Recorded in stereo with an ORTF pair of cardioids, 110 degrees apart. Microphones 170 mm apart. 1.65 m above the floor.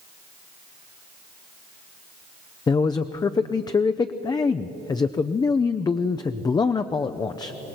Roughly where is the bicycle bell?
I don't hear a bicycle bell.